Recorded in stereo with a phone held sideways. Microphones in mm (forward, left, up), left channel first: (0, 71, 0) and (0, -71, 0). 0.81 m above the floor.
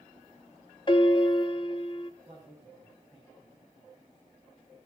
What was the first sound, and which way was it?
A piano, 35° left (ahead or behind).